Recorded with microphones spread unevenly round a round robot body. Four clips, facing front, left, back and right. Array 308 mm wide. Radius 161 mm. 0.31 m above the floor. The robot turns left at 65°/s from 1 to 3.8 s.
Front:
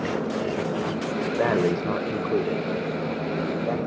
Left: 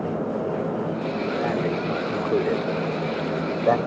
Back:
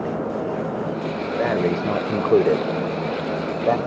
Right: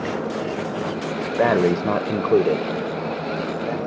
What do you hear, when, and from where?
1.4 s breathing: 80° right; by 3.8 s 125° left